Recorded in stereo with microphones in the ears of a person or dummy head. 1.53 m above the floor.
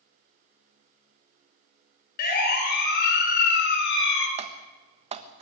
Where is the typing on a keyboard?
35° right (ahead or behind), 1.4 m.